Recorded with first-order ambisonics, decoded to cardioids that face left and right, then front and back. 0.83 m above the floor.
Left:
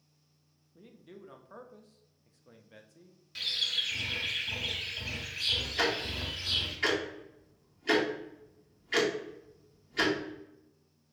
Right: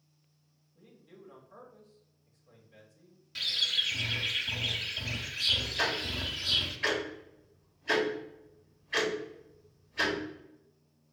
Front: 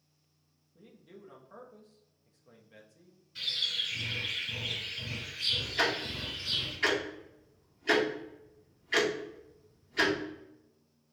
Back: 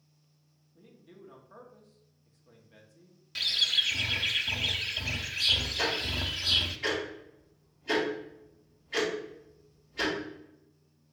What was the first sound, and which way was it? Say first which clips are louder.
A man speaking: left 4 dB, even; 85° left.